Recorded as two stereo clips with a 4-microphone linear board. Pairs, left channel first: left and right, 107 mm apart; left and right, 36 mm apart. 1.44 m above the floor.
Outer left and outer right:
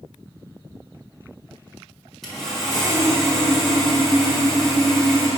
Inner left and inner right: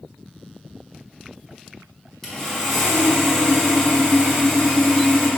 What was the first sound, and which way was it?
Sawing, 5° left (ahead or behind).